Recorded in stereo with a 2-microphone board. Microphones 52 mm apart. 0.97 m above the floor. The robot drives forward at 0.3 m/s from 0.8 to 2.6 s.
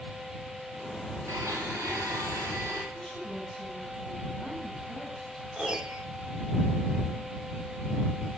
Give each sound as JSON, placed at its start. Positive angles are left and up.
{"t": 1.3, "sound": "a blender", "side_deg": -80, "distance_m": 5.0}
{"t": 2.9, "sound": "a woman speaking", "side_deg": 5, "distance_m": 7.0}
{"t": 5.6, "sound": "a piano", "side_deg": -15, "distance_m": 1.0}